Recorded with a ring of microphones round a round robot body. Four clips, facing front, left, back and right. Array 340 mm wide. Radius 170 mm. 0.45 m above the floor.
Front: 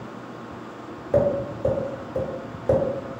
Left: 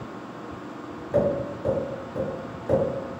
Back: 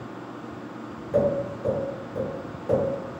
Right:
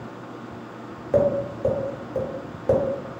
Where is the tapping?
55° right, 1.0 m.